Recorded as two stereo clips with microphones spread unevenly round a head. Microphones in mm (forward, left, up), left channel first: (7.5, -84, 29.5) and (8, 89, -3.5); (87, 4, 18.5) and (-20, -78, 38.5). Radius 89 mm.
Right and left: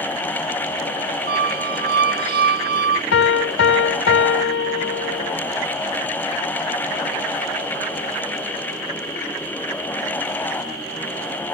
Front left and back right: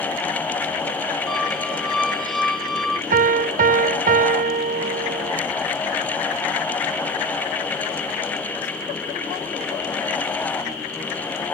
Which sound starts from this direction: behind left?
A squeak, at 1.3 s.